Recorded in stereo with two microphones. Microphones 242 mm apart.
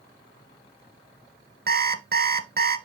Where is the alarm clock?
40° right (ahead or behind), 0.9 m.